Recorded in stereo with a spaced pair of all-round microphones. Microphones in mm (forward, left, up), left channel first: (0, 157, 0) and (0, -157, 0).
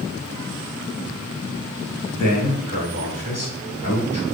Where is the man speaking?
75° left (ahead or behind), 2.5 m.